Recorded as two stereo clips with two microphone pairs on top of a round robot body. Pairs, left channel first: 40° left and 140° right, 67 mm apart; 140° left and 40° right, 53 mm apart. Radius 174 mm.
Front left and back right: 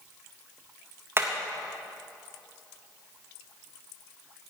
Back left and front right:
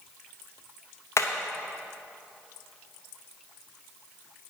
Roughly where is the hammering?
Behind.